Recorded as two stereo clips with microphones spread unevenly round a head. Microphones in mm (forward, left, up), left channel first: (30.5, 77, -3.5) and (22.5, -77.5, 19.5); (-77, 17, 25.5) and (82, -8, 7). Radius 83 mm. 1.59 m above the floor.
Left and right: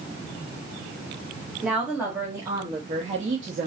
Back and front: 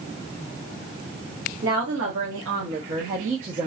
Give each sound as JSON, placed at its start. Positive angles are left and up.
{"t": 1.6, "sound": "a woman speaking", "azimuth_deg": -10, "distance_m": 1.4}